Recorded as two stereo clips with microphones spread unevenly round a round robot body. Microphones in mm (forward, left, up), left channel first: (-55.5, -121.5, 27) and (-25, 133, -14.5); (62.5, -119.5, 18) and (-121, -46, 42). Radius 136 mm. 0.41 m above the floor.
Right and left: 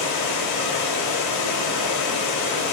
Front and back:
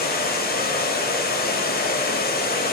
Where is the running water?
65° right, 0.8 m.